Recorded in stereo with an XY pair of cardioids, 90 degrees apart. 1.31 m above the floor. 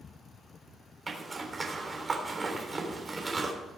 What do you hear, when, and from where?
1.1 s a zipper: 30° right, 3.5 m